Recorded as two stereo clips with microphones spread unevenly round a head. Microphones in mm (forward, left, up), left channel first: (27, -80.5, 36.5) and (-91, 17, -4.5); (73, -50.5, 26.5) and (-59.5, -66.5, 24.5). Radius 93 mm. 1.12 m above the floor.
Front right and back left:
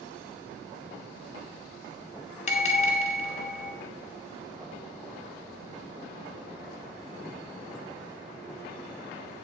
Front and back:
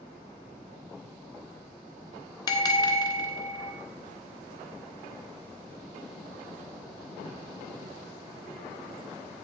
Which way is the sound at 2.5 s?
45° right.